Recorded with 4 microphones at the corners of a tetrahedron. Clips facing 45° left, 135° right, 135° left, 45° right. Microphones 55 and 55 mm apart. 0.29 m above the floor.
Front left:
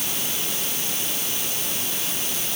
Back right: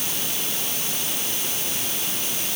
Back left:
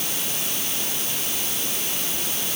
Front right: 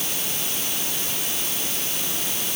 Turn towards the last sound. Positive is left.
No sound to turn to.